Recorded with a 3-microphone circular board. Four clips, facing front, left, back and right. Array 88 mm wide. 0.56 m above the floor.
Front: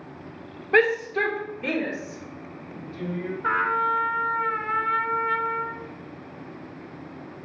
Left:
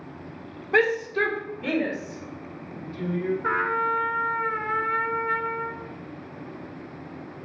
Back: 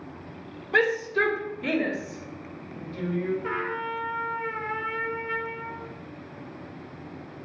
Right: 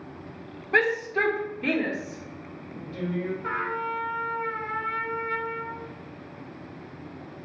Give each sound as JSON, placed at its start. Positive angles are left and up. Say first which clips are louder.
{"t": 0.7, "sound": "a shout", "louder": "left 2 dB, front 3 dB", "azimuth_deg": -15, "distance_m": 1.4}
{"t": 3.4, "sound": "a trumpet", "louder": "left 5 dB, front 7 dB", "azimuth_deg": 30, "distance_m": 0.9}